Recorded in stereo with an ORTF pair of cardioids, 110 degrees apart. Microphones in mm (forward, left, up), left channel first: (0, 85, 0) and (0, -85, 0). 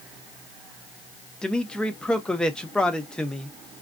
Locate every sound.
1.4 s a man speaking: 5° left, 1.0 m